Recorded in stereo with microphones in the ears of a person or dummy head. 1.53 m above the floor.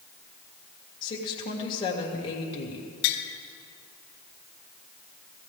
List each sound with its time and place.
1.0 s a woman speaking: 25° left (ahead or behind), 2.5 m
3.0 s tapping: 55° left (ahead or behind), 1.5 m